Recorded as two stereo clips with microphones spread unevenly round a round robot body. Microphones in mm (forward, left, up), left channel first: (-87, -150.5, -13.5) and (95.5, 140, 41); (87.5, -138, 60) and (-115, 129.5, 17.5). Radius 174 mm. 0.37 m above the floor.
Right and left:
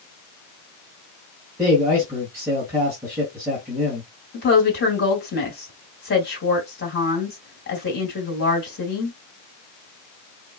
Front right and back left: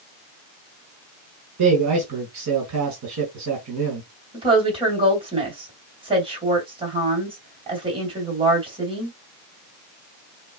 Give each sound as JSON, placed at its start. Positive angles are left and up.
{"t": 1.6, "sound": "a man speaking", "azimuth_deg": 145, "distance_m": 1.8}
{"t": 4.3, "sound": "a woman speaking", "azimuth_deg": -170, "distance_m": 2.0}